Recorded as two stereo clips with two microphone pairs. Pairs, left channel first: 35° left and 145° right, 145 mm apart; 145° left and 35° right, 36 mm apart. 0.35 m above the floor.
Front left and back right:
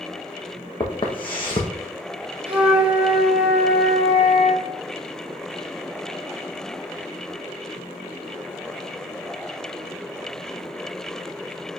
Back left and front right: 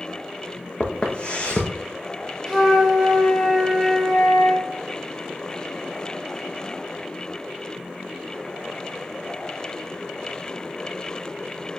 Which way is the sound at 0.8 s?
90° left.